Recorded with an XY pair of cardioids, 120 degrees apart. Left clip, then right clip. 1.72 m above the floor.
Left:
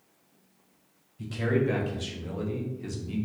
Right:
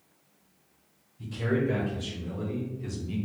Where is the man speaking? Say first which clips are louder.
Left 2 dB; 55° left, 1.3 m; by 3.2 s straight ahead, 0.6 m.